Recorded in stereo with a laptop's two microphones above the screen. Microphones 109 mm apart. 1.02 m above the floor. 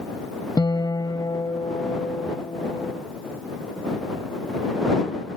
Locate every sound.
0.6 s a guitar: 40° left (ahead or behind)